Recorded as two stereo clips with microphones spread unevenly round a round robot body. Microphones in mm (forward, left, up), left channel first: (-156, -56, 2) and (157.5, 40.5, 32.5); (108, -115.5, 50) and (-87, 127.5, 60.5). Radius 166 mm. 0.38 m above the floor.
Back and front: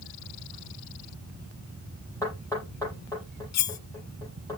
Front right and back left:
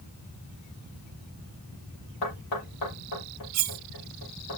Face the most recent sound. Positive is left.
turn(degrees=165)